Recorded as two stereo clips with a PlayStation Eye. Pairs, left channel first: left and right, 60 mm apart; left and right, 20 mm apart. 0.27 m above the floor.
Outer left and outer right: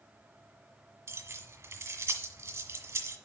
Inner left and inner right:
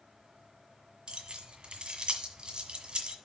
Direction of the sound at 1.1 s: 45° right (ahead or behind).